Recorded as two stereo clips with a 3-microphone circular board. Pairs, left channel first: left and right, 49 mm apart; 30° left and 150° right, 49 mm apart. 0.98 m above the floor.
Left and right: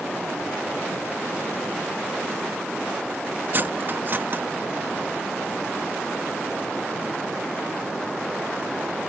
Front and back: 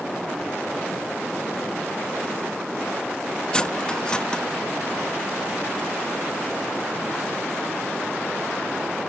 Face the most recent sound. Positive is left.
turn(degrees=-45)